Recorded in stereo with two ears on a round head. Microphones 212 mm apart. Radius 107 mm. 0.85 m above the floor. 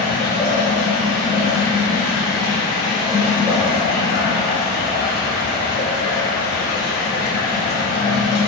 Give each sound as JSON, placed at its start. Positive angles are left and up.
{"t": 0.0, "sound": "running water", "side_deg": -20, "distance_m": 1.8}